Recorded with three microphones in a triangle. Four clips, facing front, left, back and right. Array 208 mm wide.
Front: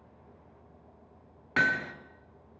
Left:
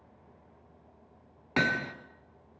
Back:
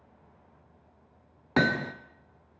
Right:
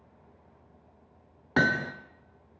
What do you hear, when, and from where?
1.6 s hammering: 160° right, 1.3 m